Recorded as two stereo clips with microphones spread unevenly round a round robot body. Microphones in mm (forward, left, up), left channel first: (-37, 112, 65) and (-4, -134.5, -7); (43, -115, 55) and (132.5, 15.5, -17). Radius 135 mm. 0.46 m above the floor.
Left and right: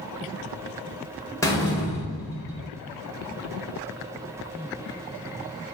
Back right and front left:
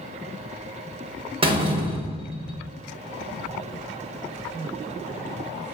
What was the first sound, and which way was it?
A door slam, 15° left.